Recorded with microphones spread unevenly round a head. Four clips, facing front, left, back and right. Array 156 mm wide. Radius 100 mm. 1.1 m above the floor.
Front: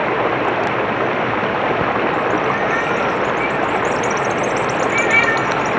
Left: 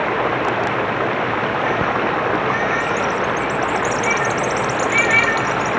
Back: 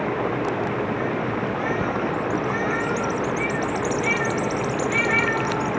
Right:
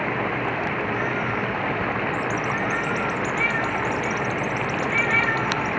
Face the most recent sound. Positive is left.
turn(degrees=35)